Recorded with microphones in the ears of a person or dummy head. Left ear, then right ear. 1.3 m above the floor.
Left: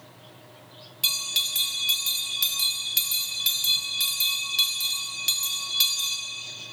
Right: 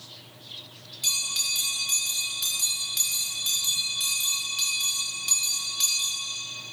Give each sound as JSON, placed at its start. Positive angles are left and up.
{"t": 1.0, "sound": "a bell", "side_deg": 15, "distance_m": 1.3}